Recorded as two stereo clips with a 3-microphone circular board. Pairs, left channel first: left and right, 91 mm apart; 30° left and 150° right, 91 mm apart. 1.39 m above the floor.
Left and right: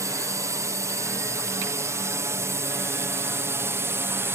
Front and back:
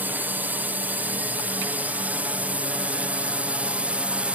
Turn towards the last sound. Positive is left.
turn(degrees=-90)